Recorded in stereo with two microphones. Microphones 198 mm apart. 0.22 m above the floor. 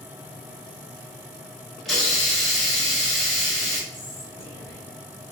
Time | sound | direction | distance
1.9 | a hiss | centre (ahead or behind) | 1.1 m
3.9 | whispering | 15° left (ahead or behind) | 1.2 m